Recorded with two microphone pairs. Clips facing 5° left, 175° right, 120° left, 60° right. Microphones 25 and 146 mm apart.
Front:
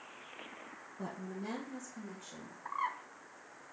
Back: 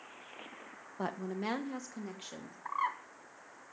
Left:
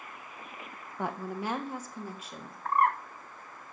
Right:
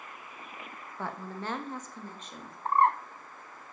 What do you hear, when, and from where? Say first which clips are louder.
1.0 s a woman speaking: back 6 dB, left 4 dB; 165° right, 1.1 m; by 2.5 s 155° right, 2.5 m
2.6 s a bird: back 3 dB, right 2 dB; 105° right, 0.9 m